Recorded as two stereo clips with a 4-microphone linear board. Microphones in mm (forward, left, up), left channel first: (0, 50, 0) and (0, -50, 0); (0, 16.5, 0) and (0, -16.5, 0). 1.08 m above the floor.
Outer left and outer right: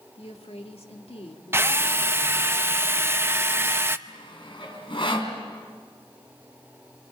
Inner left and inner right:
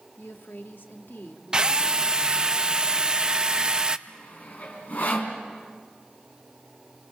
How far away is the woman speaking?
About 1.8 m.